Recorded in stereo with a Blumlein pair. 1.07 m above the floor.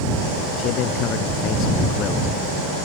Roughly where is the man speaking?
Ahead left.